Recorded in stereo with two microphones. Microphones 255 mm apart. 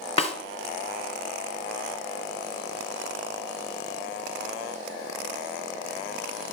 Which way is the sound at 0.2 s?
25° left (ahead or behind).